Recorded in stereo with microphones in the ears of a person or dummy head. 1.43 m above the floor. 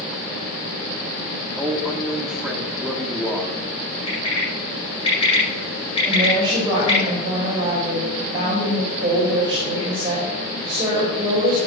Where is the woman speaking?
25° right (ahead or behind), 5 m.